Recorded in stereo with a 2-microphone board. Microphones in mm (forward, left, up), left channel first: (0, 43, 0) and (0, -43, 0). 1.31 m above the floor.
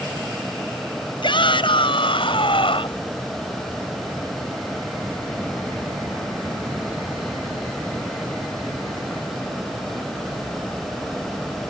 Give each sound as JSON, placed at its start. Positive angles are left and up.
{"t": 1.2, "sound": "a shout", "side_deg": 65}